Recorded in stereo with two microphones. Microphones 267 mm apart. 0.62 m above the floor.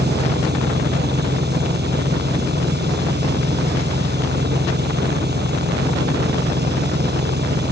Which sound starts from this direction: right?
An engine running, at 0.0 s.